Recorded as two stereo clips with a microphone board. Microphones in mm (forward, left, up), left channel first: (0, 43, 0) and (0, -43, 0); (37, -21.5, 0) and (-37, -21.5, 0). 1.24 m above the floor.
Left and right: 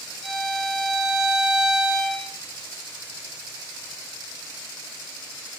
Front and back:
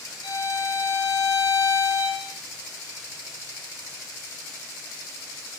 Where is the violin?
5° left, 2.5 m.